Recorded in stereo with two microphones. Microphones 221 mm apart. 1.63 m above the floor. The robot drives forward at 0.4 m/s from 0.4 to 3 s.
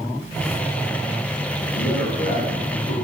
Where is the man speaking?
75° left (ahead or behind), 1.6 m; by 3.0 s 80° left, 1.6 m.